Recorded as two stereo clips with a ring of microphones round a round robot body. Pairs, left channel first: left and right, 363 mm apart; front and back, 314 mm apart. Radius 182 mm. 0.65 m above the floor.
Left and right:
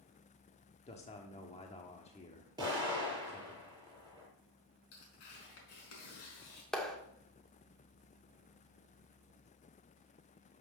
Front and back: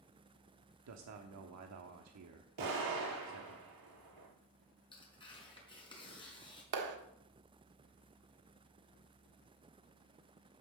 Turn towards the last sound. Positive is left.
turn(degrees=180)